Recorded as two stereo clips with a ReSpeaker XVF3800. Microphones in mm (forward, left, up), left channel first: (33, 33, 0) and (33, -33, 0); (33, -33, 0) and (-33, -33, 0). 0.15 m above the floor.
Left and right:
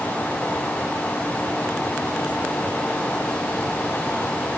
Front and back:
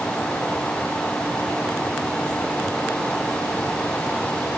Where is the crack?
I don't hear a crack.